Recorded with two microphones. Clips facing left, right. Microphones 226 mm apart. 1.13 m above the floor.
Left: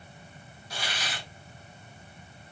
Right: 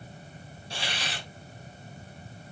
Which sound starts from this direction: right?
A hiss, at 0.7 s.